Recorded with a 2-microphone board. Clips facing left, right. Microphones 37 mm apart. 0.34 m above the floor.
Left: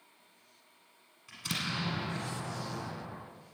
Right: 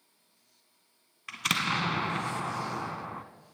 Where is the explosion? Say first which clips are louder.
Right 8 dB; 80° right, 1.1 m.